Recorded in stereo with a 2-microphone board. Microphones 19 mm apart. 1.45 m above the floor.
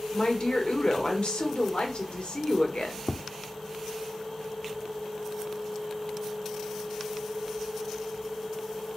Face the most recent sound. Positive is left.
turn(degrees=5)  # may be behind; listen again after turning